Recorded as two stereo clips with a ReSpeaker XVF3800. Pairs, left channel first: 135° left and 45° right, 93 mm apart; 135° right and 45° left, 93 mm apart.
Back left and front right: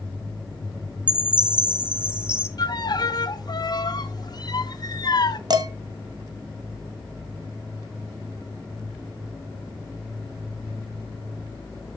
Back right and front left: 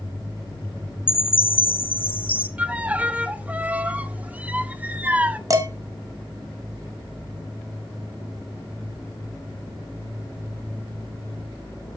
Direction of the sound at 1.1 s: 125° right.